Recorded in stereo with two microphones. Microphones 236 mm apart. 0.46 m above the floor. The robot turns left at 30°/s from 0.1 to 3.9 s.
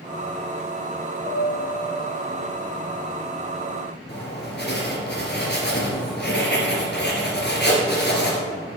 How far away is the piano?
About 1.8 m.